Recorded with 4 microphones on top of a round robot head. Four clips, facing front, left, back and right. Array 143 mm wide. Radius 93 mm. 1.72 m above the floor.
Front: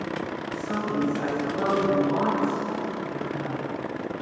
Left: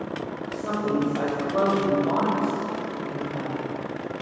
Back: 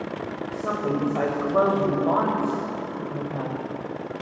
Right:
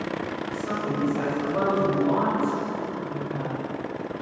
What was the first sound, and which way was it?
A woman speaking, 165° left.